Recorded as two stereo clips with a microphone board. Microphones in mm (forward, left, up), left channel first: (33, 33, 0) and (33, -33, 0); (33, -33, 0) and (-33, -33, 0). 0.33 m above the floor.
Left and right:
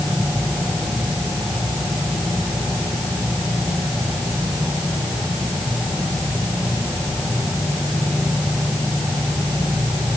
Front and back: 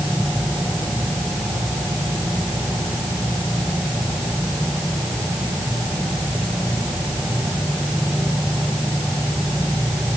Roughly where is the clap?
I don't hear a clap.